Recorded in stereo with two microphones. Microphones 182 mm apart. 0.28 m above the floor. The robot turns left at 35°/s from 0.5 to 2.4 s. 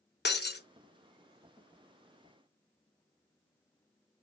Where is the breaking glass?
65° left (ahead or behind), 0.6 m.